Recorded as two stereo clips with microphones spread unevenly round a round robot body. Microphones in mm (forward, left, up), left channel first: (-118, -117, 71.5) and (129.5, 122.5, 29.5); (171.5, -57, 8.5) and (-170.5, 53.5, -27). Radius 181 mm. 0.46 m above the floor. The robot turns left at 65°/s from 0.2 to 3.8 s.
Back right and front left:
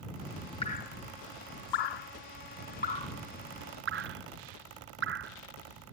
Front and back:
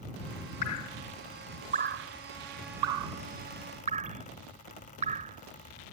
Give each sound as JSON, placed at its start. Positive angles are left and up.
{"t": 0.6, "sound": "dripping", "azimuth_deg": -60}